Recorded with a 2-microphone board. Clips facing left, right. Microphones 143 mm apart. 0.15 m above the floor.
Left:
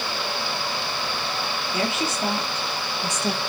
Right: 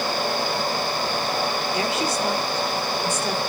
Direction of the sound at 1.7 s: 30° left (ahead or behind).